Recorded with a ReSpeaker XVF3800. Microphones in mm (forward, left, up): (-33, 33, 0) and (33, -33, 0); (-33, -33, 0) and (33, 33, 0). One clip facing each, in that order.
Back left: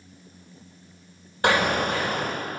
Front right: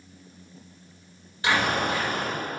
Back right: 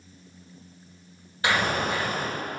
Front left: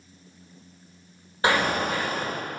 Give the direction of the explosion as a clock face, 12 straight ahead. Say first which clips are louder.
Back left 2 dB, front left 2 dB; 9 o'clock.